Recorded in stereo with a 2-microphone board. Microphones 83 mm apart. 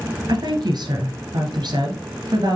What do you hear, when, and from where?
0.3 s a woman speaking: 60° right (ahead or behind), 2.5 m